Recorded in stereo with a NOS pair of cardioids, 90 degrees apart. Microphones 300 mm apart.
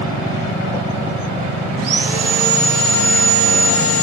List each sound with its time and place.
1.8 s sawing: 55° right, 1.8 m